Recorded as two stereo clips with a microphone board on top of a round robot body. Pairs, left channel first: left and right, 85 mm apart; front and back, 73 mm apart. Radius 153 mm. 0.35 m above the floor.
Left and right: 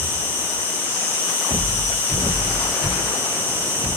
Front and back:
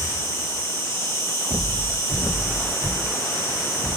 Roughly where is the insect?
Ahead left.